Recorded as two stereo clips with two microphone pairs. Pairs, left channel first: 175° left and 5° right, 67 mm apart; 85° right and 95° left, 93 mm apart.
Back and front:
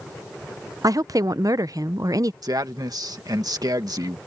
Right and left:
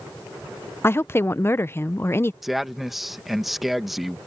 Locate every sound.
0.8 s a woman speaking: 30° right
2.4 s a man speaking: 5° left